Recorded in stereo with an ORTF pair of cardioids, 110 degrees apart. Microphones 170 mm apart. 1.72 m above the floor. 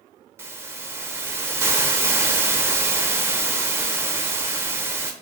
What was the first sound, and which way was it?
A hiss, 15° right.